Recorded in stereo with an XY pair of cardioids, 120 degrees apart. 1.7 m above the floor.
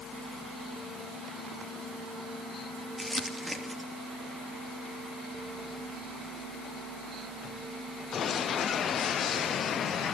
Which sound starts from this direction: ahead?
Crumpling, at 3.0 s.